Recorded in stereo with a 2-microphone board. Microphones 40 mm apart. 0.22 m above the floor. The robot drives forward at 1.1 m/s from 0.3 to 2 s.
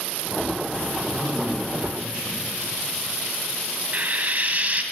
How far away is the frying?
About 0.7 m.